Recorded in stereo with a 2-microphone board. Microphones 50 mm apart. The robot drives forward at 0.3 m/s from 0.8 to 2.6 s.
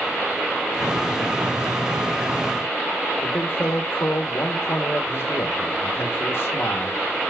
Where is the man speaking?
55° left (ahead or behind), 1.0 m.